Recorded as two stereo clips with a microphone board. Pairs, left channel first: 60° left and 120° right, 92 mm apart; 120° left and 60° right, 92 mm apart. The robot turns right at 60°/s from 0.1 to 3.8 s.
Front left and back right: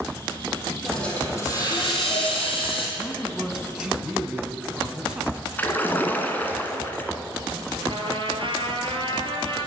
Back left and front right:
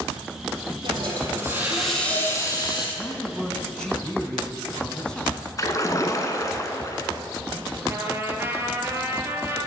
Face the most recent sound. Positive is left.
turn(degrees=-120)